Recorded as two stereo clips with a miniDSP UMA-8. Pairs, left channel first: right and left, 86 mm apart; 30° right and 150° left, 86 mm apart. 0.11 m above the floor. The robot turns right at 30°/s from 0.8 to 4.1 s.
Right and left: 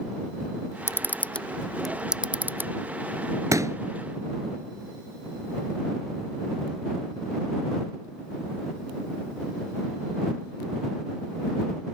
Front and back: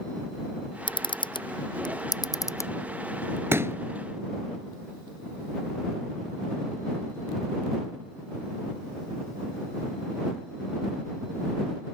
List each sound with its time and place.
0.9 s a camera shutter: 30° right; by 2.7 s 25° left
3.5 s a pop: 105° left; by 3.8 s 115° left